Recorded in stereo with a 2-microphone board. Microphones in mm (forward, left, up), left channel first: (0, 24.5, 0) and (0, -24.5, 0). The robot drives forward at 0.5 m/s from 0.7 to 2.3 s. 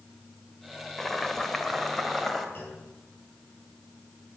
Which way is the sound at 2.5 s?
45° left (ahead or behind).